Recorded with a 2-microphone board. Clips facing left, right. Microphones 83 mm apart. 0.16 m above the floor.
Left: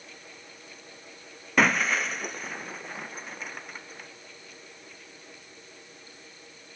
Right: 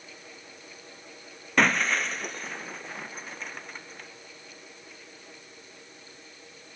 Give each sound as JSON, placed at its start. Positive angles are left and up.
{"t": 1.6, "sound": "breaking glass", "side_deg": 5}